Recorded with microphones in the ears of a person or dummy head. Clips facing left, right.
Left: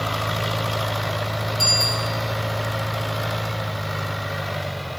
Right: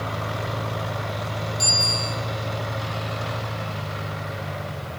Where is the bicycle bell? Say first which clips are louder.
Left 3 dB; 5° left (ahead or behind), 5.5 m.